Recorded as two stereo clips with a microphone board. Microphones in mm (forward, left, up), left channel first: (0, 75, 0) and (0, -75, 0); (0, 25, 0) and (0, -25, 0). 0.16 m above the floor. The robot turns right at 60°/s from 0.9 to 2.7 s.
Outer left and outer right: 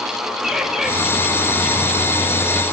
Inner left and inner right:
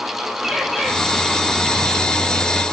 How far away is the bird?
About 1.8 m.